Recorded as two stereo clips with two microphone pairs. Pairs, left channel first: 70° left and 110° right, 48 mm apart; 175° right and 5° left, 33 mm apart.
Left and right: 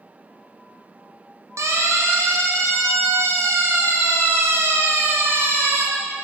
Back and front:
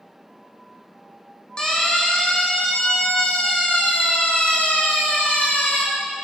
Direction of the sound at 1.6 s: 115° right.